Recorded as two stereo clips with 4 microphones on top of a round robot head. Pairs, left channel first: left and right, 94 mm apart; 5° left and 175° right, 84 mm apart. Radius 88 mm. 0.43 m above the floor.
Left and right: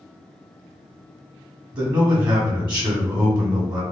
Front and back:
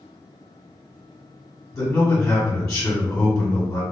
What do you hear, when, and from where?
1.7 s a man speaking: 40° right, 1.2 m